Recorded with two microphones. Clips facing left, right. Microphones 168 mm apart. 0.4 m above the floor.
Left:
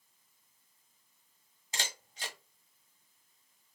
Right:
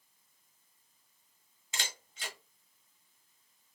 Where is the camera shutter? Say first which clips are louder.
Left 2 dB; 35° left (ahead or behind), 1.2 m.